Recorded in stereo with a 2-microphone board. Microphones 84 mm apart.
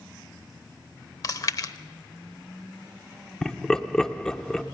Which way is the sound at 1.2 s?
45° left (ahead or behind).